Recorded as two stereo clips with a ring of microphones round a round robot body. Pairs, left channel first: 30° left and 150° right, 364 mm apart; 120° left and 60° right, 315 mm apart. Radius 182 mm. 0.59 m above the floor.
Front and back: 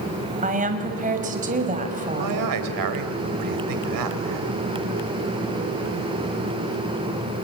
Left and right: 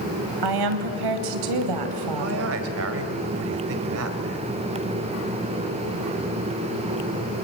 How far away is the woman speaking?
About 3 m.